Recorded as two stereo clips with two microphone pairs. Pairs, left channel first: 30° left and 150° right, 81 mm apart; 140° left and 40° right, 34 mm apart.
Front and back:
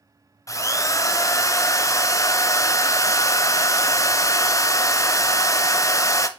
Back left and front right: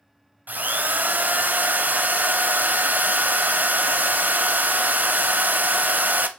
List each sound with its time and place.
0.5 s a drill: 15° right, 0.6 m